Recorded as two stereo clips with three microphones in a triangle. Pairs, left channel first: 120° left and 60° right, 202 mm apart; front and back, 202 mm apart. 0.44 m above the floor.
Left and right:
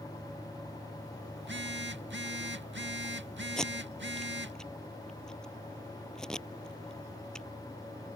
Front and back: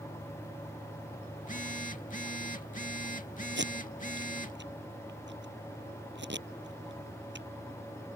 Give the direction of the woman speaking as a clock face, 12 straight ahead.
I don't hear a woman speaking.